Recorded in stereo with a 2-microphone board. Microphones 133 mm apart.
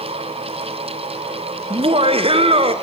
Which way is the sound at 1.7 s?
45° right (ahead or behind).